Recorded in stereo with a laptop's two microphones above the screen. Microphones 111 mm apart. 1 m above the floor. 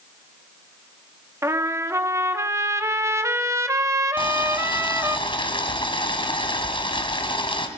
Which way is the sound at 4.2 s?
50° left (ahead or behind).